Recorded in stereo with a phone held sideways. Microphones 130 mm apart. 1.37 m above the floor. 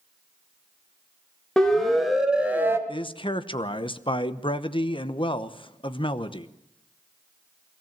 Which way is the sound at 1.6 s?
5° left (ahead or behind).